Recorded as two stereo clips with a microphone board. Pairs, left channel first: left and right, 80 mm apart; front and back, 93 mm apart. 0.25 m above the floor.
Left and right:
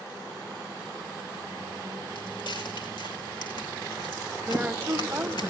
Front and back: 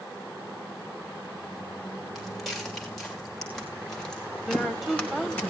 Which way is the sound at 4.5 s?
90° right.